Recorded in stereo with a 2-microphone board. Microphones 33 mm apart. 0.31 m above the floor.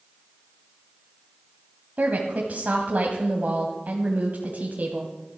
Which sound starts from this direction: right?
A woman speaking, at 2.0 s.